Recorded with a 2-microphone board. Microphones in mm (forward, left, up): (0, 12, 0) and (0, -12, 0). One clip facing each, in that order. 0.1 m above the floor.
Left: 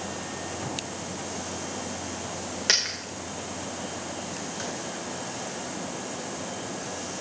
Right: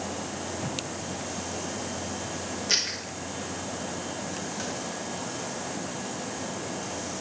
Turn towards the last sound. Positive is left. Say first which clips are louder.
# left 2 dB
turn(degrees=60)  # may be behind; listen again after turning